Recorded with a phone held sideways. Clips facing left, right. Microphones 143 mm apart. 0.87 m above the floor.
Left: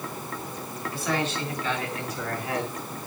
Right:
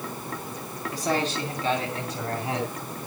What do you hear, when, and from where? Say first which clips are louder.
0.9 s a man speaking: right 2 dB; 40° right (ahead or behind), 7.5 m; by 2.8 s 25° right (ahead or behind), 7 m